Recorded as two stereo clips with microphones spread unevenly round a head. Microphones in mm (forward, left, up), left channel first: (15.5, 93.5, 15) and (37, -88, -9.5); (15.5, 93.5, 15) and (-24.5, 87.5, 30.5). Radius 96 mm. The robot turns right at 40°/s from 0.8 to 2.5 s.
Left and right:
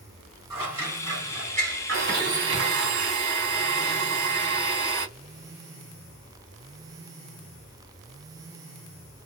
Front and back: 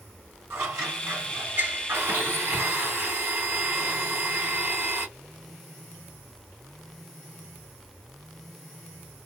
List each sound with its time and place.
0.5 s scissors: 155° right, 1.8 m; by 2.9 s 85° right, 1.8 m
1.9 s a blender: 115° right, 1.7 m; by 5.1 s 95° right, 1.7 m